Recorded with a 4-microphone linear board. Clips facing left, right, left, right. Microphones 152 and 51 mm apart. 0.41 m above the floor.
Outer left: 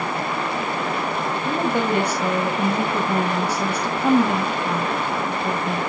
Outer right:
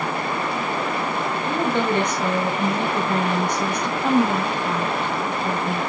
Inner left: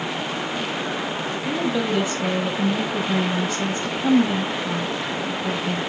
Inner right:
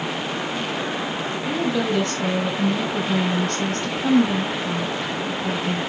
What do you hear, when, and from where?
1.4 s a woman speaking: 10° left (ahead or behind), 2.5 m